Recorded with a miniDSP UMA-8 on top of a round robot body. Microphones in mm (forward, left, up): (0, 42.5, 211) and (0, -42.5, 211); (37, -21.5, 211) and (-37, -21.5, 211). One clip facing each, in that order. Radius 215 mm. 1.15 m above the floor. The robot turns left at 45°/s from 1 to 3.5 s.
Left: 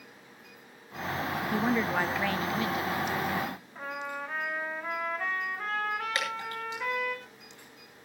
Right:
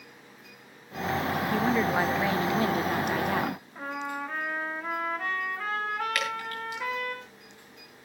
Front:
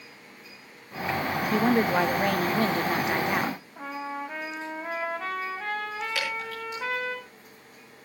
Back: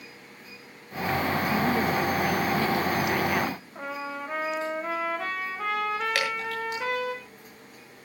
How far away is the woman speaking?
About 0.8 m.